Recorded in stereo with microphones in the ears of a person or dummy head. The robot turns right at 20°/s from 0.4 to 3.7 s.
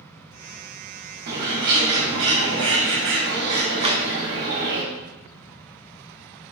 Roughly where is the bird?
Behind right.